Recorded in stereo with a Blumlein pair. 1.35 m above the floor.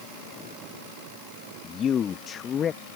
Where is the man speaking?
25° left.